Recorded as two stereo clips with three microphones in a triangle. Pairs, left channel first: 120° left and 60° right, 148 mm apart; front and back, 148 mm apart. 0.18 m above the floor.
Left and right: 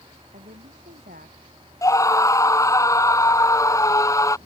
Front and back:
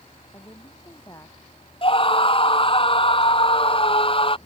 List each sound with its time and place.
0.3 s a woman speaking: 65° right
1.8 s a scream: 50° left